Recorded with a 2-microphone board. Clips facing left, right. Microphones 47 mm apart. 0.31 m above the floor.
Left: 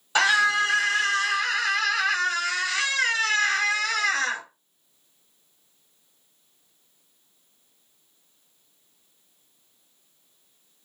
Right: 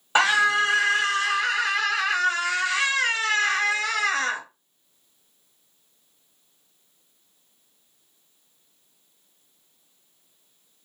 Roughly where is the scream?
Right.